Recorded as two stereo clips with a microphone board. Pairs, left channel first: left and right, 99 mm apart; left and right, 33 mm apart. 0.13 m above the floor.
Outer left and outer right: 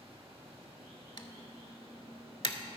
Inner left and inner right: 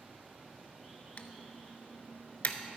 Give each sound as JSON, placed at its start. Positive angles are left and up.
{"t": 0.0, "sound": "running water", "side_deg": -80, "distance_m": 2.5}
{"t": 1.2, "sound": "typing on a keyboard", "side_deg": 55, "distance_m": 0.6}